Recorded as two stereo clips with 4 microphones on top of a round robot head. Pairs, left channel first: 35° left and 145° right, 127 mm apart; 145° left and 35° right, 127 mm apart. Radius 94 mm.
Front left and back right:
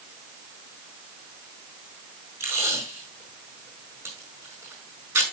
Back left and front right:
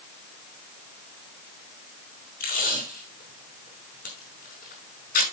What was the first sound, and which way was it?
Tape being pulled, 145° left.